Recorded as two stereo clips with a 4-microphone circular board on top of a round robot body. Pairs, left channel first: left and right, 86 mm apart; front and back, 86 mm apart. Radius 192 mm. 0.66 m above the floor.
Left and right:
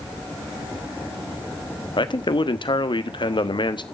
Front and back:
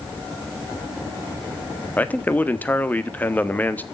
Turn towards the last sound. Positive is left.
turn(degrees=70)